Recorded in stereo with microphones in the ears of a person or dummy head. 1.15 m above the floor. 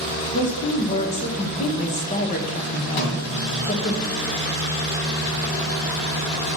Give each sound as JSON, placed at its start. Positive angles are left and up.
{"t": 0.3, "sound": "a woman speaking", "side_deg": 35, "distance_m": 1.0}
{"t": 3.0, "sound": "a snare drum", "side_deg": 55, "distance_m": 2.0}